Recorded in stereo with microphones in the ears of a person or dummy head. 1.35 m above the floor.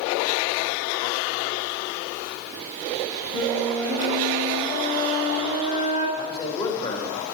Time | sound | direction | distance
3.3 | a flute | 70° left (ahead or behind) | 5.5 m
6.2 | a man speaking | 25° left (ahead or behind) | 1.9 m